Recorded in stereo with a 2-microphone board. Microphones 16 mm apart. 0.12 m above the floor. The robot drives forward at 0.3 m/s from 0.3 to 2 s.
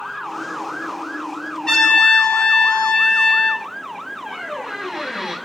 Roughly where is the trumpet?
Left.